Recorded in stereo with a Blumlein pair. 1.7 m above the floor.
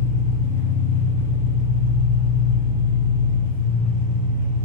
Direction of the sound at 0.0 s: 60° left.